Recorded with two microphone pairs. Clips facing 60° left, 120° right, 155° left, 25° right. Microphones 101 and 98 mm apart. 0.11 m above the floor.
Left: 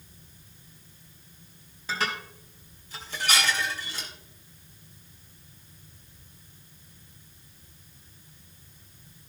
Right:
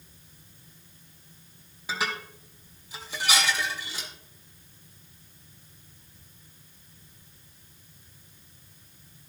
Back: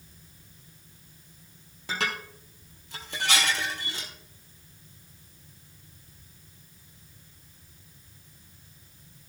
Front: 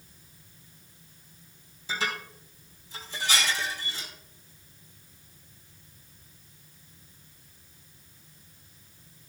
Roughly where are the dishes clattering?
Behind.